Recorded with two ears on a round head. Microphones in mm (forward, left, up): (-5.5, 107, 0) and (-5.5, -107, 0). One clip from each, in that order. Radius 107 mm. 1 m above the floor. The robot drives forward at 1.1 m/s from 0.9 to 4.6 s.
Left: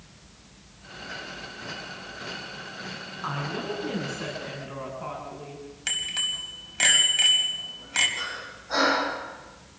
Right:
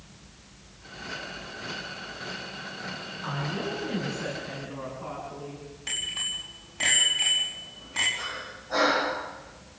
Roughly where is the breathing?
Left.